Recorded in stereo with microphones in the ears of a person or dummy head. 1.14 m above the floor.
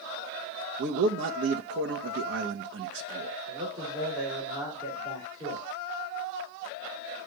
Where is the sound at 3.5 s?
20° right (ahead or behind), 4 m.